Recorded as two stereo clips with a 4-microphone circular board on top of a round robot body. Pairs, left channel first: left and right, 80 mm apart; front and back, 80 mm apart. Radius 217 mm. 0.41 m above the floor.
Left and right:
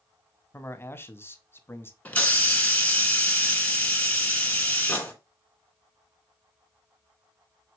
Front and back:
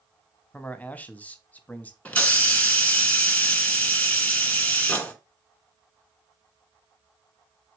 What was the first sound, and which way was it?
A man speaking, 55° left.